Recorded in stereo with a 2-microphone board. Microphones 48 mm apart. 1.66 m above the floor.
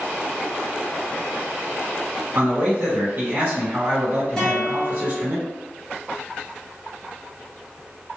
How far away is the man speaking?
About 1.3 m.